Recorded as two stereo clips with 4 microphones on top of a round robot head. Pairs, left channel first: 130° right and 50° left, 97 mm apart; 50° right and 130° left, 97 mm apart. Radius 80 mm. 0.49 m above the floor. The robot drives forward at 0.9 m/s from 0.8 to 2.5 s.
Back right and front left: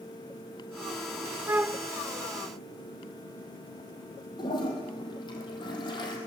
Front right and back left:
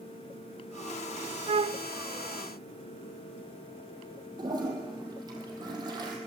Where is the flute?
110° left, 0.6 m; by 1.9 s 135° left, 0.8 m.